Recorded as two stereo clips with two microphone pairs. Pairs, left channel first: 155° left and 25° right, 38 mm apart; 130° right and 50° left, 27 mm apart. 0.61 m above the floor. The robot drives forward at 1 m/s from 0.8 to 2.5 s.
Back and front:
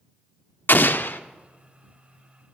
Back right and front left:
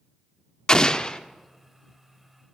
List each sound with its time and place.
0.7 s an explosion: 175° left, 0.6 m